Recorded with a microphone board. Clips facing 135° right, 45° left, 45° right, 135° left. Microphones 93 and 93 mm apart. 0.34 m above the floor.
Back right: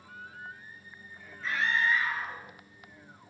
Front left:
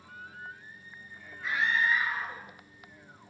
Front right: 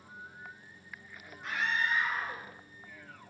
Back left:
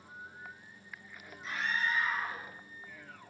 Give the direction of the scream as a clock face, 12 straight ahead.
1 o'clock.